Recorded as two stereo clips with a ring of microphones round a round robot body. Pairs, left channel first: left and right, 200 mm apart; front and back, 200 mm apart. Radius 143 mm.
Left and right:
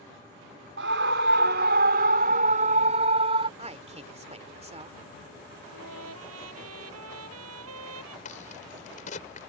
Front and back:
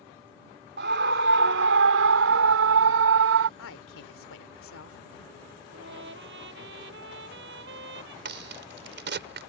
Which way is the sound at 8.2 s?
155° left.